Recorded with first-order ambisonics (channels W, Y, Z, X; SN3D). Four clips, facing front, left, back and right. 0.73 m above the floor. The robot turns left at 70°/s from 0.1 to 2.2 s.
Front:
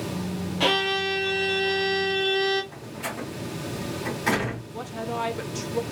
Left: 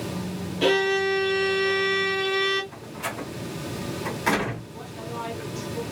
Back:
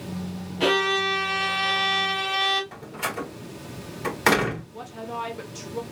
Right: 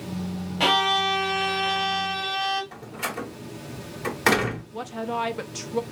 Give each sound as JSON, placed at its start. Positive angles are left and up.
{"t": 0.6, "sound": "a violin", "azimuth_deg": -75, "distance_m": 2.5}
{"t": 2.7, "sound": "a door slam", "azimuth_deg": -145, "distance_m": 2.0}
{"t": 4.7, "sound": "a woman speaking", "azimuth_deg": -70, "distance_m": 0.6}